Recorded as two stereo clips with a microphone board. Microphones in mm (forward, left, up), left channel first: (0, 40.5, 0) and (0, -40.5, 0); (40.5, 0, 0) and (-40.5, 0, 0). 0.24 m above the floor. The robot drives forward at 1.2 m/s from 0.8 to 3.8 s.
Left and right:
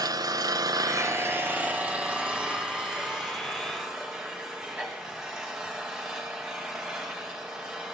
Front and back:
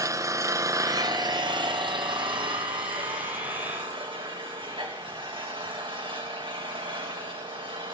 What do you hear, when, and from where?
0.0 s an engine running: 130° right, 0.7 m; by 7.9 s 175° right, 4 m